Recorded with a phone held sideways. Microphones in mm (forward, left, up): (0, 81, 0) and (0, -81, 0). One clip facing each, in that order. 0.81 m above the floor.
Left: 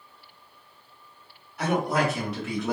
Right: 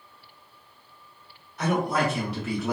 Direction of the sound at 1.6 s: 10° left (ahead or behind).